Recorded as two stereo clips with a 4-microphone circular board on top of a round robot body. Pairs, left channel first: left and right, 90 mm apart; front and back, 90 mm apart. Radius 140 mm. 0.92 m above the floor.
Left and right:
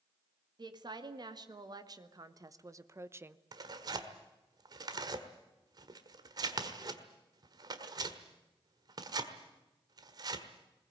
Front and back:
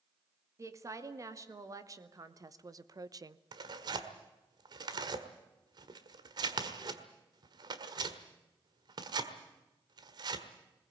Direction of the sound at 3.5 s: 135° right.